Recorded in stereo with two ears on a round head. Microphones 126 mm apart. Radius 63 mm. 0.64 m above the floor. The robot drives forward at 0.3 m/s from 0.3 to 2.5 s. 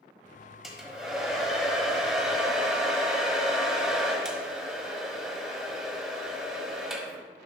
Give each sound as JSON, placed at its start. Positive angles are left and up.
{"t": 0.6, "sound": "a hair dryer", "side_deg": 0, "distance_m": 1.6}